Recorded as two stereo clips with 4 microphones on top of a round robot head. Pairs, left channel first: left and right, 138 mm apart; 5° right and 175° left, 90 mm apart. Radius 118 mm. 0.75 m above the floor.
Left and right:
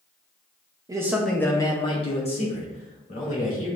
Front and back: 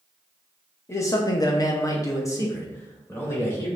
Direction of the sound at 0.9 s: 45° right.